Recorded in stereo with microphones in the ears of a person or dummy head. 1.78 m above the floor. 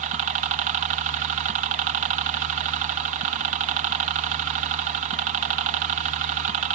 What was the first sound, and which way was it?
A helicopter, 40° right (ahead or behind).